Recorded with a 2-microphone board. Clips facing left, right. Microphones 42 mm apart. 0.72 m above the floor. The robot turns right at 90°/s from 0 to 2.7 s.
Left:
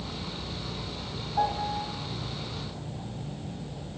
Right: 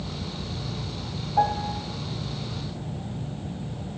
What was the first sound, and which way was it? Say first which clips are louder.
A piano: right 4 dB; 20° right.